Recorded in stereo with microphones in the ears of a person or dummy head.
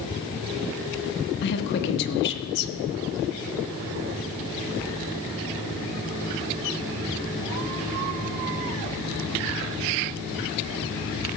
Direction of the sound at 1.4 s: 60° left (ahead or behind).